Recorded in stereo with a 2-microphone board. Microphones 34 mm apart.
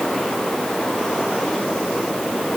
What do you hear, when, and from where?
Only background noise.